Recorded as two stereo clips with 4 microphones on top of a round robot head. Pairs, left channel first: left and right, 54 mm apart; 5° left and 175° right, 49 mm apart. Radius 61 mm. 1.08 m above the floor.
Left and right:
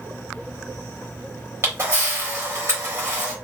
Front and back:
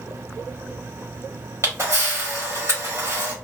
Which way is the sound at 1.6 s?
135° right.